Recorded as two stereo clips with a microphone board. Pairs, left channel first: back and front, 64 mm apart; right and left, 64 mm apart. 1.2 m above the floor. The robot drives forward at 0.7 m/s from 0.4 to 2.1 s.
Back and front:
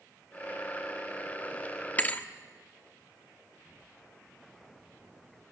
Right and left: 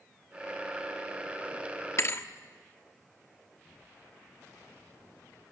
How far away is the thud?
About 1.0 m.